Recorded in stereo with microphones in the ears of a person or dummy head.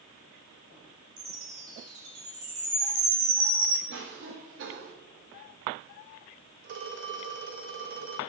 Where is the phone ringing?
55° right (ahead or behind), 2 m.